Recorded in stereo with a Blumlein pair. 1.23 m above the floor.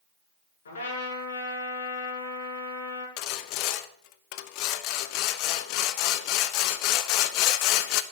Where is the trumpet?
65° left, 7 m.